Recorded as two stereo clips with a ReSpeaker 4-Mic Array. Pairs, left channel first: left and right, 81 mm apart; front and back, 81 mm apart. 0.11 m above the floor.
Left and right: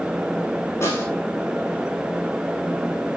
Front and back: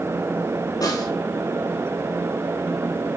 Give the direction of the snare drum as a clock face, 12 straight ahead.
11 o'clock.